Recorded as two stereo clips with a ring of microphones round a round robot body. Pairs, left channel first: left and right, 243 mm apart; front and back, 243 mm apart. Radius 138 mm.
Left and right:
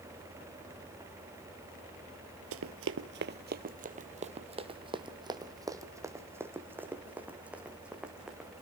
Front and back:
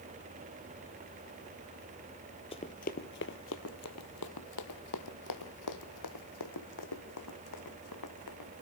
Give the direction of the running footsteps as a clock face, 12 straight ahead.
2 o'clock.